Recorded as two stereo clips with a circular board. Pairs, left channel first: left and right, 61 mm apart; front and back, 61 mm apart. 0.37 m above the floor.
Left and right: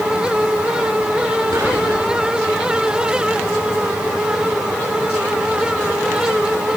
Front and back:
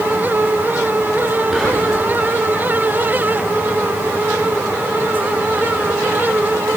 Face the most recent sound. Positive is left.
turn(degrees=-85)